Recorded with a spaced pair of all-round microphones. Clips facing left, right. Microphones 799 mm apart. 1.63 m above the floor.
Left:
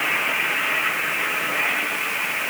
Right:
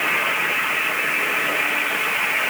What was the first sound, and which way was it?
Only background noise.